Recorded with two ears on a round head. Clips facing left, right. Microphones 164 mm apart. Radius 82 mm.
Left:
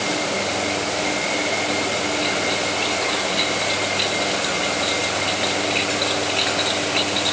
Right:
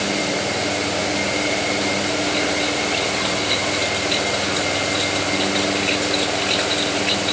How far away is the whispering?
No whispering in this recording.